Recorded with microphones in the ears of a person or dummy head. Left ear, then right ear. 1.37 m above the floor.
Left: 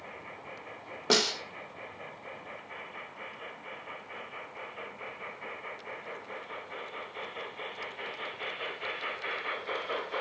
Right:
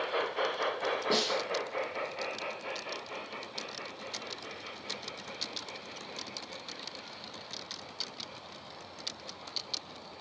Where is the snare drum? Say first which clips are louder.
Left 5 dB; 55° left (ahead or behind), 1.8 m.